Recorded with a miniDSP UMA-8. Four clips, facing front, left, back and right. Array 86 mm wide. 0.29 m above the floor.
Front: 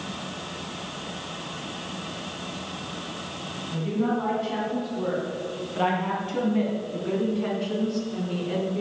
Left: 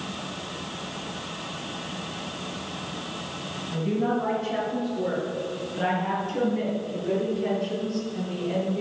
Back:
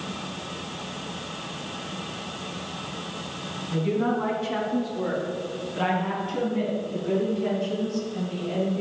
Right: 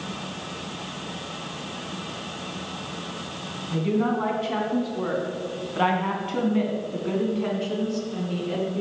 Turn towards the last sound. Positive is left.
turn(degrees=-40)